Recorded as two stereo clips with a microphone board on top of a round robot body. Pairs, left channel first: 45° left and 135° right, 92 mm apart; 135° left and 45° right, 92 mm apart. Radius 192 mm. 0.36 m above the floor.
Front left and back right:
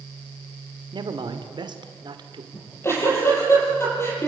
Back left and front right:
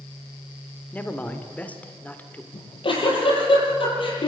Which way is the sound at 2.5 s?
110° left.